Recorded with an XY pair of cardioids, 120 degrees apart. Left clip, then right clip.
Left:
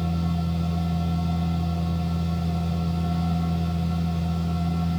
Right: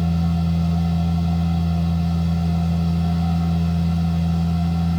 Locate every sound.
0.0 s a machine running: 15° right, 1.2 m